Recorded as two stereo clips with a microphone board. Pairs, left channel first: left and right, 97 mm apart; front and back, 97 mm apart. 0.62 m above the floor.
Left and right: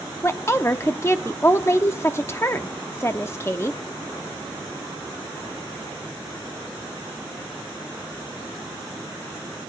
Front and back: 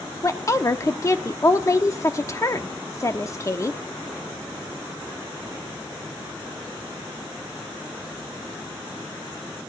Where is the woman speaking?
40° left, 1.0 m.